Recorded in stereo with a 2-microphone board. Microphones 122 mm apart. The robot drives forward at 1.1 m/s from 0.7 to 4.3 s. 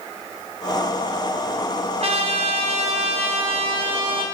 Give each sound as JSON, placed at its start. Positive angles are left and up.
{"t": 2.0, "sound": "a trumpet", "side_deg": -60, "distance_m": 2.0}